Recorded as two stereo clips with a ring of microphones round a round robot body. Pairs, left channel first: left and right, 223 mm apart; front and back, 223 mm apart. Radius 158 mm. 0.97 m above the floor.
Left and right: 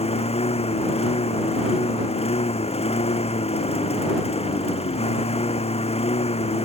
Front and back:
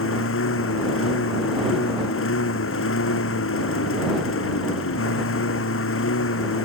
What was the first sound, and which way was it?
A lawn mower, 25° left.